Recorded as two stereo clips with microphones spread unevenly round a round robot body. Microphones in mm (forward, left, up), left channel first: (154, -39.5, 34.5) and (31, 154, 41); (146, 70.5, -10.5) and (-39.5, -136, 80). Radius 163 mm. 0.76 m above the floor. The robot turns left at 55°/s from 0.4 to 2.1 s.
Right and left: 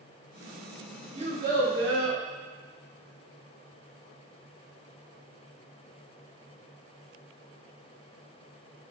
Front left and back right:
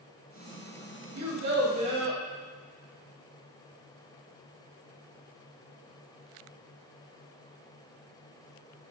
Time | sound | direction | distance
1.1 | a child speaking | 175° right | 0.9 m